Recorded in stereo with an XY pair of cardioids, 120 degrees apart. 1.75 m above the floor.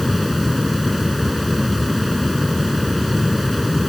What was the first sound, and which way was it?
A fan, 10° left.